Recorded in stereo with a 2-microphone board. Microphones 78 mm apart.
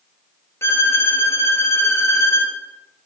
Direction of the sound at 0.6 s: 35° left (ahead or behind).